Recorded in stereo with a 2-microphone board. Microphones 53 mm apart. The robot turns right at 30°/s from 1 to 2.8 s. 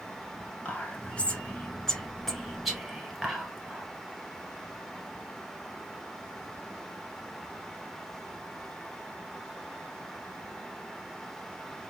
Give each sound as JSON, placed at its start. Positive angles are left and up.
{"t": 0.7, "sound": "whispering", "side_deg": 25, "distance_m": 1.2}